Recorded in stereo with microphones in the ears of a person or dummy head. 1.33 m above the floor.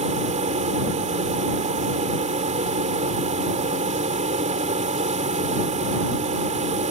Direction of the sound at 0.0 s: 25° right (ahead or behind).